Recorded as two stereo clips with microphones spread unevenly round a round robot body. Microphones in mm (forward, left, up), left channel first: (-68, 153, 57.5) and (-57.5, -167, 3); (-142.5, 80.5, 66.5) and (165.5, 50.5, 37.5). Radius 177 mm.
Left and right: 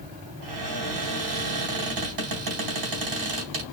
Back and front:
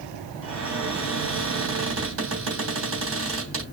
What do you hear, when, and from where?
0.4 s a cupboard door: 60° right, 3 m